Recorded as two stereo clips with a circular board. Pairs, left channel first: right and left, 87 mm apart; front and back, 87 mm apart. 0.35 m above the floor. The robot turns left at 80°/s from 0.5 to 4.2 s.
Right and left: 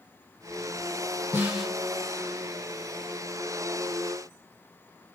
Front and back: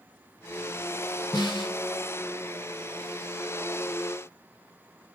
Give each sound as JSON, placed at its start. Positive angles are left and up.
{"t": 1.3, "sound": "a snare drum", "azimuth_deg": 25, "distance_m": 3.0}